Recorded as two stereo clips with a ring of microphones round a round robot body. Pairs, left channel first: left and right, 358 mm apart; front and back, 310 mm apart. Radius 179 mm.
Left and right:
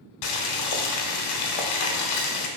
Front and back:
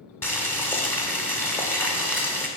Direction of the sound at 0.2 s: 85° left.